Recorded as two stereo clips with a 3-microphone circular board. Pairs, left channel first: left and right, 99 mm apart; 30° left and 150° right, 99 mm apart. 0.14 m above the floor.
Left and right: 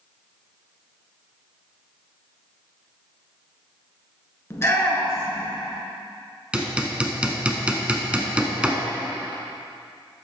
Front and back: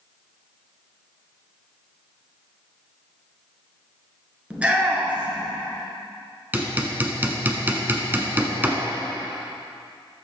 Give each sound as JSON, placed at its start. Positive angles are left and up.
{"t": 4.5, "sound": "a shout", "azimuth_deg": 140, "distance_m": 1.4}
{"t": 6.5, "sound": "hammering", "azimuth_deg": -140, "distance_m": 0.9}